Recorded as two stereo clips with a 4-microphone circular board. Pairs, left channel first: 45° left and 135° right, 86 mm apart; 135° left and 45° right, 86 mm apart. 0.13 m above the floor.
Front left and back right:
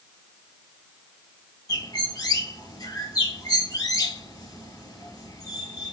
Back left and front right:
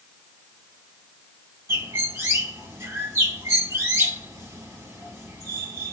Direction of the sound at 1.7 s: 15° left.